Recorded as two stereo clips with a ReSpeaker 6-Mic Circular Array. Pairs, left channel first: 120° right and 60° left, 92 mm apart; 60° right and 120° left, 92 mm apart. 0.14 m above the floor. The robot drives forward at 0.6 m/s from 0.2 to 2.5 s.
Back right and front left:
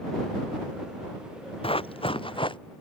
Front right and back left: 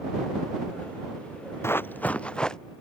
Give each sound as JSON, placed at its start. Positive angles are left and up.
{"t": 1.6, "sound": "running footsteps", "azimuth_deg": -125}